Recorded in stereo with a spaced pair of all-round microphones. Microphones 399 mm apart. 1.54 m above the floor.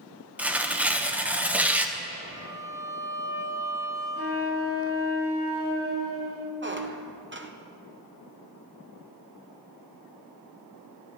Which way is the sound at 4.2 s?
35° right (ahead or behind).